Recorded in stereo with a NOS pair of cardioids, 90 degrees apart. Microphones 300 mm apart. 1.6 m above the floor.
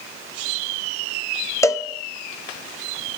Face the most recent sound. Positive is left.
turn(degrees=10)